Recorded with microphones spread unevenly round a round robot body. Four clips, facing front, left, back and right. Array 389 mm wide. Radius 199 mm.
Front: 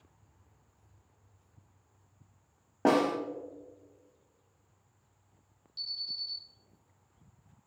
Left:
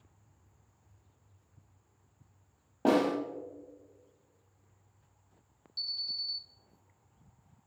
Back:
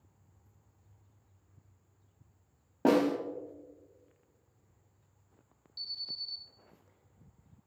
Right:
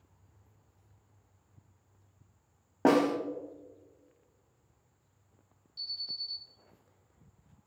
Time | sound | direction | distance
2.9 | a snare drum | 85° right | 1.2 m
5.8 | an alarm | 75° left | 1.5 m